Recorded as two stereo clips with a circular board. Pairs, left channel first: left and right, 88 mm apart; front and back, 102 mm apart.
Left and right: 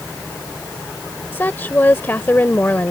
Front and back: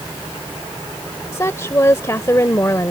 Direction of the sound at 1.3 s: 40° left.